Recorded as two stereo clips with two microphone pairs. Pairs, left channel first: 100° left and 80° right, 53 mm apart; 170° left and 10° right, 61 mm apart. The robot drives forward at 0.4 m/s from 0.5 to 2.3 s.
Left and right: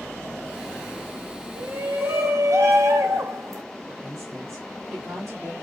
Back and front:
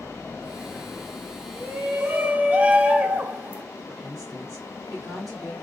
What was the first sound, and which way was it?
A shout, 50° right.